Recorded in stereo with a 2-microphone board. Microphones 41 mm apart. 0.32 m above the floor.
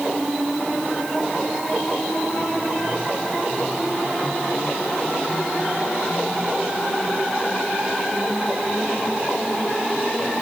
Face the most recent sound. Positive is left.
No sound to turn to.